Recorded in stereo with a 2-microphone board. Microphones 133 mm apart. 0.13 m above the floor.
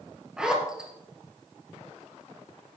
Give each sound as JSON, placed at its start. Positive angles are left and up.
{"t": 0.4, "sound": "a zipper", "side_deg": -5, "distance_m": 2.5}